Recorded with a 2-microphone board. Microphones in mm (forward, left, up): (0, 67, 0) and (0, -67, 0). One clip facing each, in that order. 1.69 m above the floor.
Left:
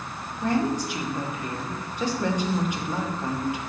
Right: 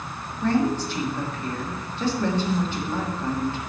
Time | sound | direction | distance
0.4 | a woman speaking | 15° left (ahead or behind) | 1.5 m